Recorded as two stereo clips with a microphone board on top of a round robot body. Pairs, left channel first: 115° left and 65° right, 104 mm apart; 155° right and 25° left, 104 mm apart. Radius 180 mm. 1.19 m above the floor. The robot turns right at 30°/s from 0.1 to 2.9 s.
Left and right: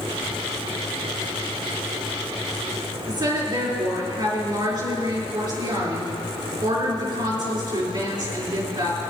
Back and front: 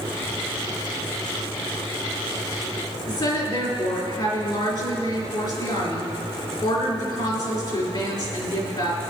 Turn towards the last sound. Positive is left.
turn(degrees=-120)